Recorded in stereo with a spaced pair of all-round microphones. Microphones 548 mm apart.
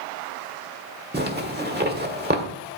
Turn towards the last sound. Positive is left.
turn(degrees=-20)  # may be behind; listen again after turning